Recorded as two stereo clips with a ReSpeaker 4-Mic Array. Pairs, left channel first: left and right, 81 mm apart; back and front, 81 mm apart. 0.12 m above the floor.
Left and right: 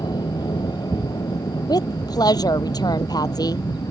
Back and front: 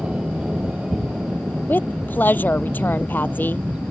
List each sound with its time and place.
0.0 s an aircraft: 75° left
1.7 s a woman speaking: 115° left